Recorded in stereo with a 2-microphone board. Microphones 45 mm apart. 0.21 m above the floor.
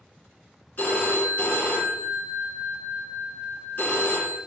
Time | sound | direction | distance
0.8 | a phone ringing | 45° left (ahead or behind) | 1.2 m